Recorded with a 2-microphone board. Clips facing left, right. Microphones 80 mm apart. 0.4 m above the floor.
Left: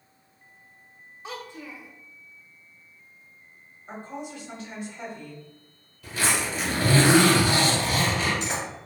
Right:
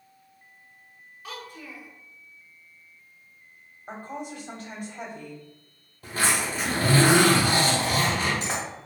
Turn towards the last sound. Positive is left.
turn(degrees=-45)  # may be behind; listen again after turning